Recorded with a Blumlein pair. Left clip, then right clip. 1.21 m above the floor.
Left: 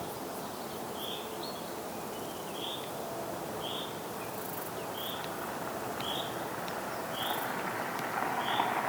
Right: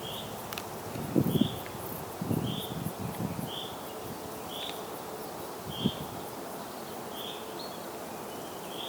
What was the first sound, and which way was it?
Only background noise.